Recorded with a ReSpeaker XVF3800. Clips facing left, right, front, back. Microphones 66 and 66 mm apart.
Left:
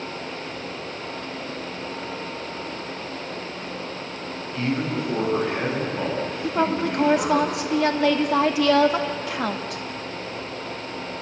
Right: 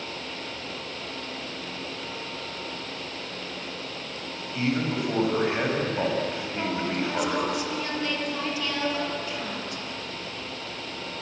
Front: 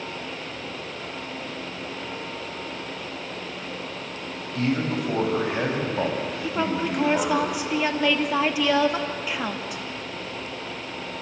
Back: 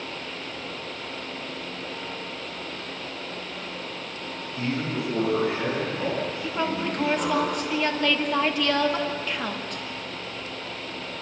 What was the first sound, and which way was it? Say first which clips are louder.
A man speaking: left 1 dB, front 4 dB; 15° right.